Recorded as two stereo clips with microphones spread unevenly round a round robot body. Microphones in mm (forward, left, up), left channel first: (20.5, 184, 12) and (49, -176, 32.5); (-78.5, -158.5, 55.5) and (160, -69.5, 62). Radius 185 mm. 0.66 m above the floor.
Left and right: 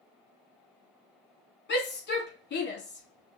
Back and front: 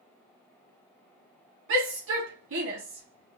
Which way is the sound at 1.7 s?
45° left.